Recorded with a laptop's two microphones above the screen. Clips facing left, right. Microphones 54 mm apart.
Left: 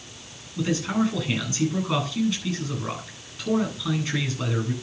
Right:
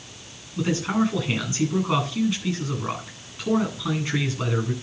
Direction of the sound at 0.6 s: 25° right (ahead or behind).